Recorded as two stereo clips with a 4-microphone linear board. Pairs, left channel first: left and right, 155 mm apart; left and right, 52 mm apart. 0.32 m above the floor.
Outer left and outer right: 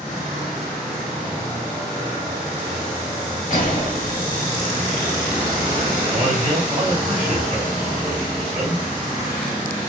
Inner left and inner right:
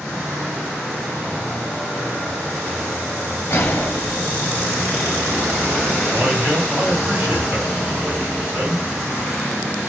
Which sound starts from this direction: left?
A gunshot, at 3.5 s.